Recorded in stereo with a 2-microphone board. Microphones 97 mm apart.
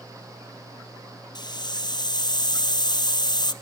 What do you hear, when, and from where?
1.4 s a hiss: 45° left (ahead or behind), 0.6 m